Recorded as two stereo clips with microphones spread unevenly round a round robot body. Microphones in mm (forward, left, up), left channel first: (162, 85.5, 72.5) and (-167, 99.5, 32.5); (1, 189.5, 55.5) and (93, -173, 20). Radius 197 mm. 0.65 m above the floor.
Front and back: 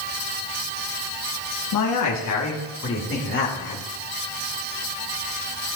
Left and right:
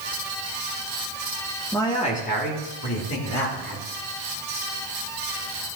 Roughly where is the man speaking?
Ahead.